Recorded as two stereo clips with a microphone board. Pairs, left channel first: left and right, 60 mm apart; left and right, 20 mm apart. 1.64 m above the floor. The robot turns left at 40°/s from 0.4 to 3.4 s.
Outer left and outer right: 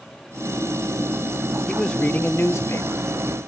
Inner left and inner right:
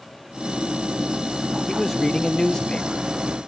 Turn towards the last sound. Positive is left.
turn(degrees=100)